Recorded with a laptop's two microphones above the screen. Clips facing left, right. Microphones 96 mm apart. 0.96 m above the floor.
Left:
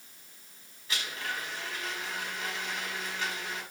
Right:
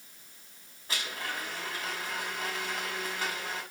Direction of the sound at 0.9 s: 40° right (ahead or behind).